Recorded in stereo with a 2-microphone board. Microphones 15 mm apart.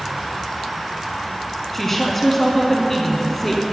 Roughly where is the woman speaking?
Centre.